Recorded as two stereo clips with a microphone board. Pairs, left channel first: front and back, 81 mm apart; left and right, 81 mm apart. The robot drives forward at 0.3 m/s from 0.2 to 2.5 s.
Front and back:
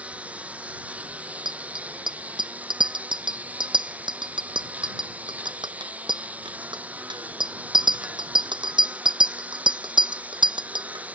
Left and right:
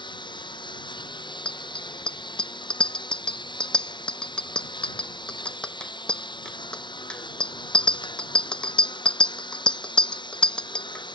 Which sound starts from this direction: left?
A lawn mower, at 0.0 s.